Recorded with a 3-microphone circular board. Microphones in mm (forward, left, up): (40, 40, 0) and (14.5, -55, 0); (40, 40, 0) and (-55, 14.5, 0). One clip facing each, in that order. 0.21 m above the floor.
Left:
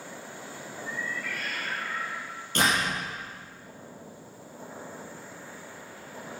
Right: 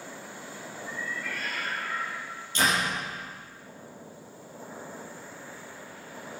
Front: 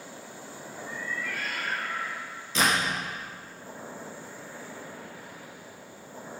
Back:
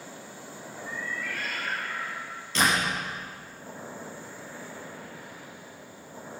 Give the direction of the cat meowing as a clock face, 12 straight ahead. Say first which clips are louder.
Left 1 dB, even; 1 o'clock.